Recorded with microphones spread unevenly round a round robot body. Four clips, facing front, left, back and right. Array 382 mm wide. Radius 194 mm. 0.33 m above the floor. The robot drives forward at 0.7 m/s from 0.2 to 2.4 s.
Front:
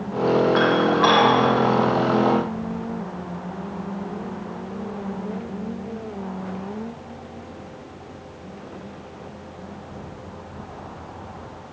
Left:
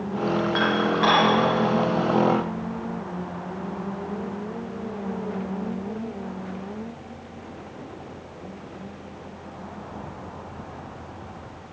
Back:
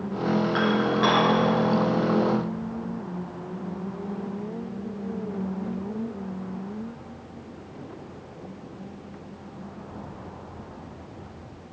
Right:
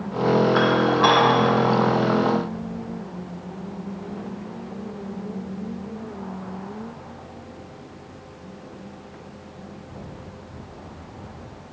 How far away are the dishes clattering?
About 3 m.